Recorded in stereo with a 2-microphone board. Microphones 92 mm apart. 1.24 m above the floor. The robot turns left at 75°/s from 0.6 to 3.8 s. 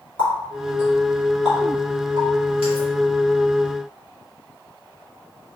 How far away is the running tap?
About 2 m.